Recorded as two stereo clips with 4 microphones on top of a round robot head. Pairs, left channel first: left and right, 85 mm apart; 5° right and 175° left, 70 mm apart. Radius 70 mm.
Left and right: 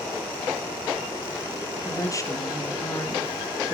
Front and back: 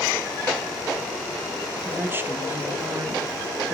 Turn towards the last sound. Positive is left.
turn(degrees=125)